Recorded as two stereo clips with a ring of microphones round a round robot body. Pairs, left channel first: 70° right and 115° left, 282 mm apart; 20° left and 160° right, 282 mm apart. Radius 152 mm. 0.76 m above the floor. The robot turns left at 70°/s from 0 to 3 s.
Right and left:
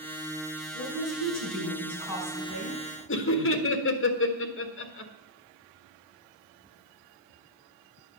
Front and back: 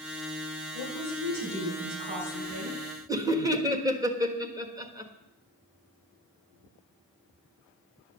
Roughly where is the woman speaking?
Ahead.